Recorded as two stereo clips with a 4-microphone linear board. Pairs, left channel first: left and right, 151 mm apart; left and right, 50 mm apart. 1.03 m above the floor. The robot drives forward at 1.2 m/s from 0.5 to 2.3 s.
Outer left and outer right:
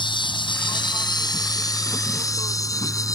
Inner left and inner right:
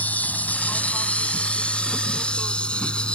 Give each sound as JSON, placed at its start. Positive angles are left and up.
{"t": 0.0, "sound": "an insect", "side_deg": 35}